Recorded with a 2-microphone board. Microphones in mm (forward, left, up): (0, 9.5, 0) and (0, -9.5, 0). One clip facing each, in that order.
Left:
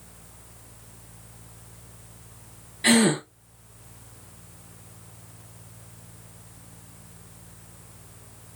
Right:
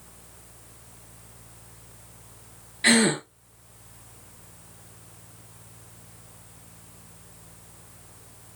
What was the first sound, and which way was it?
A gasp, 20° right (ahead or behind).